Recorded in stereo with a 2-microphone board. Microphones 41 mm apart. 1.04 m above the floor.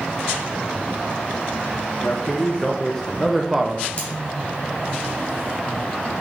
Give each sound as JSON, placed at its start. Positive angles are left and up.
{"t": 2.0, "sound": "a man speaking", "side_deg": 30, "distance_m": 1.1}
{"t": 4.0, "sound": "cutlery clinking", "side_deg": 30, "distance_m": 2.5}